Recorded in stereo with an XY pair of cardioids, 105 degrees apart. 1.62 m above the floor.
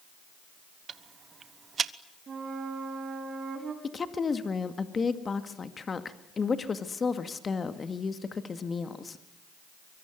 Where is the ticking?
45° right, 1.1 m.